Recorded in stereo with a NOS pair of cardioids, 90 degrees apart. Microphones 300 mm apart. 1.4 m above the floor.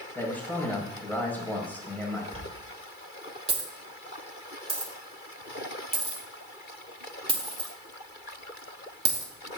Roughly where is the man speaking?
Ahead.